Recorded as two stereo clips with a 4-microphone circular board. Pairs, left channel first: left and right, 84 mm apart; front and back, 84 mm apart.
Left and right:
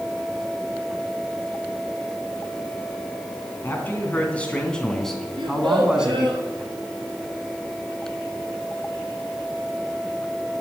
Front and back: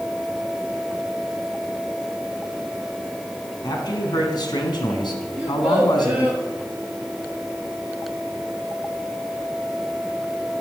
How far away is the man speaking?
About 3 m.